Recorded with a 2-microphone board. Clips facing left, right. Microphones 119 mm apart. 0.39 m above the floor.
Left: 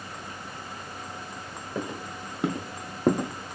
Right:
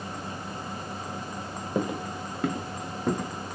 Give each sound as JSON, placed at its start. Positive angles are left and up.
{"t": 1.8, "sound": "footsteps", "side_deg": -20, "distance_m": 0.8}